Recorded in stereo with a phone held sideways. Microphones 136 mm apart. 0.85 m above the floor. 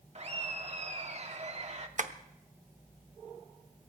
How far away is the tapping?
About 0.8 m.